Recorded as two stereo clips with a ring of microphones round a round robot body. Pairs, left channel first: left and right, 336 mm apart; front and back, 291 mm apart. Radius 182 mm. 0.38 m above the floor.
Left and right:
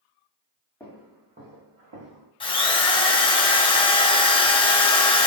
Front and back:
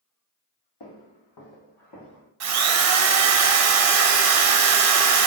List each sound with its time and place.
0.8 s footsteps: 5° left, 1.1 m; by 2.3 s 55° right, 1.5 m
2.4 s a drill: 165° left, 0.6 m